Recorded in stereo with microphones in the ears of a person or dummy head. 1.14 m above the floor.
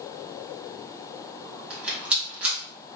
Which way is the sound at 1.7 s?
10° right (ahead or behind).